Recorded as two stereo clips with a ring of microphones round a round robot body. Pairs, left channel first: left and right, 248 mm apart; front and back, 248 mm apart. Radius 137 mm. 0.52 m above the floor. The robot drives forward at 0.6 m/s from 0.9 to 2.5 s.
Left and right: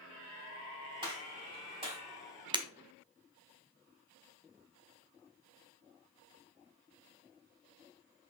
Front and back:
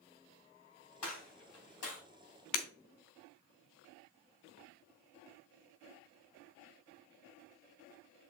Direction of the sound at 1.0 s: 20° right.